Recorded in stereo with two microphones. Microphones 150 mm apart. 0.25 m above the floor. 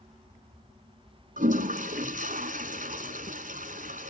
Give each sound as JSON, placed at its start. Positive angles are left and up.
{"t": 1.4, "sound": "a toilet flushing", "side_deg": -65, "distance_m": 1.4}